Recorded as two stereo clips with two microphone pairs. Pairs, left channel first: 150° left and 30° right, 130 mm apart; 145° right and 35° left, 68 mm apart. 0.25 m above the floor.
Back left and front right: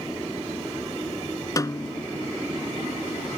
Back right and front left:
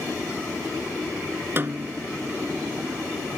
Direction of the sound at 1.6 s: 85° left.